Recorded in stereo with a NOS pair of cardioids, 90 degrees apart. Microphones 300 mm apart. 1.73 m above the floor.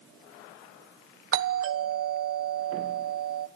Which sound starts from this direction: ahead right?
A doorbell, at 1.3 s.